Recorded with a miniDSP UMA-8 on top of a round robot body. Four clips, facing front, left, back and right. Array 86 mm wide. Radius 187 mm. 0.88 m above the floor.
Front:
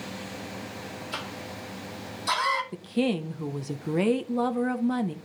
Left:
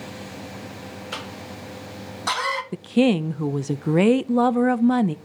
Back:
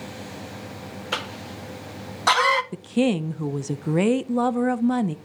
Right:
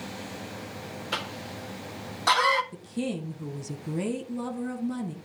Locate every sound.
1.1 s a cough: 175° right, 2.0 m
2.7 s a woman speaking: 105° left, 0.6 m